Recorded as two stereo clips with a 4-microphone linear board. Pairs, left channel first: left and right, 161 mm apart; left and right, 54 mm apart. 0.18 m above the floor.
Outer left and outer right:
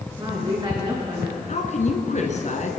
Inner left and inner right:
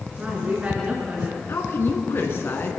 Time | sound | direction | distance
0.2 | a woman speaking | 30° right (ahead or behind) | 2.5 m
1.5 | a woman speaking | 50° left (ahead or behind) | 1.8 m